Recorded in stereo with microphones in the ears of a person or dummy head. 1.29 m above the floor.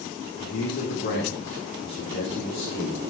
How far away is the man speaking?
About 2.5 m.